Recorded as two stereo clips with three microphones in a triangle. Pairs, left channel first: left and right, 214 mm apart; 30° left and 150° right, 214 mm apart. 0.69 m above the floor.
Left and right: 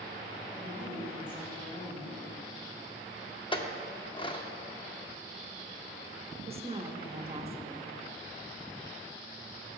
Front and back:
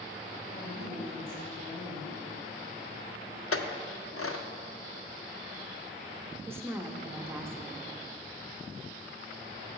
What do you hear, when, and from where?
0.5 s a woman speaking: 10° left, 3.5 m
3.5 s a clink: 25° left, 0.6 m
6.5 s a woman speaking: 85° right, 0.8 m